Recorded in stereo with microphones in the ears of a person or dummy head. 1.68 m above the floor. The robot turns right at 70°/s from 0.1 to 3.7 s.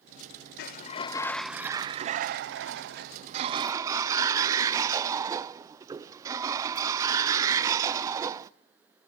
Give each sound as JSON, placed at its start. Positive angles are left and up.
{"t": 0.6, "sound": "a sliding door", "azimuth_deg": 125, "distance_m": 0.5}